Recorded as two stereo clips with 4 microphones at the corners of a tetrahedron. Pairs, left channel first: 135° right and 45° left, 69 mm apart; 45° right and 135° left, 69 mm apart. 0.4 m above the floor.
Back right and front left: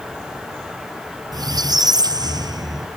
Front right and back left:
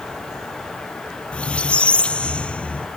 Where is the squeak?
25° left.